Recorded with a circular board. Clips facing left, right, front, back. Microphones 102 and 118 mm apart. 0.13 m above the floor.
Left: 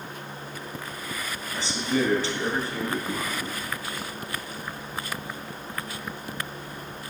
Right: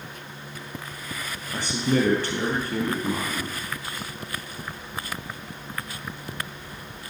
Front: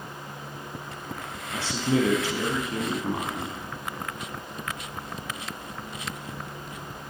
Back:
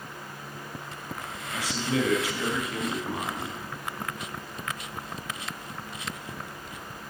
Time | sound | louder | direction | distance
1.5 | a man speaking | right 3 dB, front 4 dB | 60° right | 3 m